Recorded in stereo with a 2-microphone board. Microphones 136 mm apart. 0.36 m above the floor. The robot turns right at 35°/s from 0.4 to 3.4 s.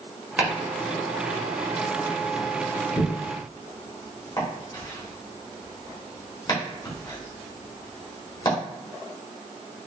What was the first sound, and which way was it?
Chopping, 10° right (ahead or behind).